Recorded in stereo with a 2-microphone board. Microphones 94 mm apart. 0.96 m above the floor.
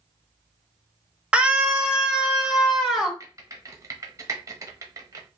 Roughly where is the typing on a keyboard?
Right.